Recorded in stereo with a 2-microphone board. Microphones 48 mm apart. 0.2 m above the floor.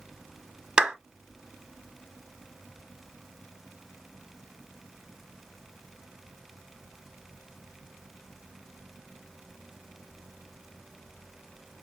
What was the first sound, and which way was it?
A clap, 20° right (ahead or behind).